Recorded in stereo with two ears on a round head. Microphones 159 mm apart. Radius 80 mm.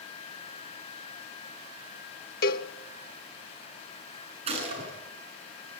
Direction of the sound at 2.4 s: 55° left (ahead or behind).